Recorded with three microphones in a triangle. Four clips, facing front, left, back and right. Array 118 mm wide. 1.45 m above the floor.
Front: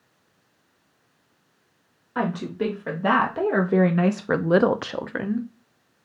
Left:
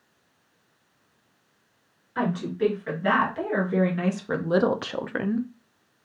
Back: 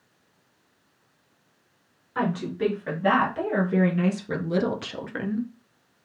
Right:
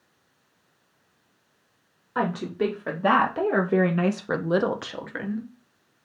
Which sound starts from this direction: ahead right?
A woman speaking, at 2.1 s.